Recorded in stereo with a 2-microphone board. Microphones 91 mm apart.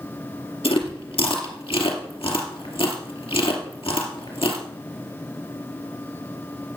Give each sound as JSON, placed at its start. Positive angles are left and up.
{"t": 0.6, "sound": "chewing", "side_deg": 85, "distance_m": 2.5}